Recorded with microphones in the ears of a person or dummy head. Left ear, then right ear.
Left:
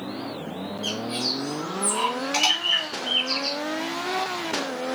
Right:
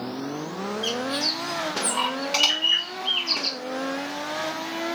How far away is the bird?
About 7 m.